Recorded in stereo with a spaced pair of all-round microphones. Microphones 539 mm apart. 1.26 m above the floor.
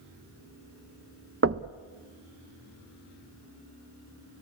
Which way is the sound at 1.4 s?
25° right (ahead or behind).